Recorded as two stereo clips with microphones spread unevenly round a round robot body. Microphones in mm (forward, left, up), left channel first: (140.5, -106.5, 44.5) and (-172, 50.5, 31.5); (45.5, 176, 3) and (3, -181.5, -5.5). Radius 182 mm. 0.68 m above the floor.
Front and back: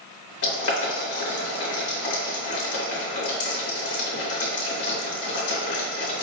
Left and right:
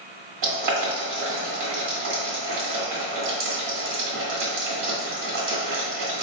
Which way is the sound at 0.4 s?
70° right.